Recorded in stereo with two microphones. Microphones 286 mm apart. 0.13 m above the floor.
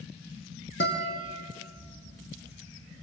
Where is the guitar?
40° left (ahead or behind), 3.5 m.